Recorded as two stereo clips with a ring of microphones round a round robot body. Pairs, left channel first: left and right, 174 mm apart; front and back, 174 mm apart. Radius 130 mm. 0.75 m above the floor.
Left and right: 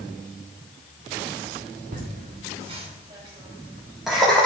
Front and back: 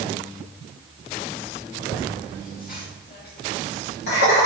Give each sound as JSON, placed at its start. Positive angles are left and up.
{"t": 1.9, "sound": "laughter", "azimuth_deg": -55, "distance_m": 1.6}